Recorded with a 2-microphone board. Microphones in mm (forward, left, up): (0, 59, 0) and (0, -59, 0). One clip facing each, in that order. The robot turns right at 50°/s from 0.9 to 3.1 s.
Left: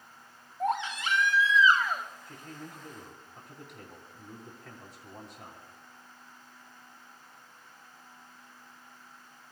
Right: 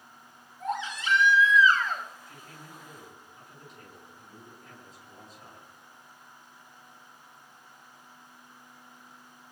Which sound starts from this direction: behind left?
A baby crying, at 0.6 s.